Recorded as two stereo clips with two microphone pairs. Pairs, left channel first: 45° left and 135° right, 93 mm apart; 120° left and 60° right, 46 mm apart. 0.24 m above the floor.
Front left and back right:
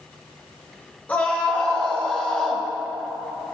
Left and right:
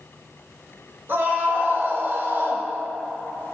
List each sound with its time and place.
1.1 s a scream: 25° right, 5 m; by 2.6 s 35° right, 4 m